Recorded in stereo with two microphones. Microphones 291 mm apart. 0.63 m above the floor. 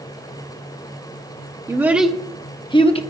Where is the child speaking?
10° right (ahead or behind), 0.7 m; by 3.0 s 20° left (ahead or behind), 0.9 m.